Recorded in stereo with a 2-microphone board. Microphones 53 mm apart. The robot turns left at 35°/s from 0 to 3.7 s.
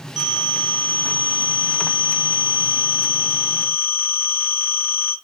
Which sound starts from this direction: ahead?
A phone ringing, at 0.2 s.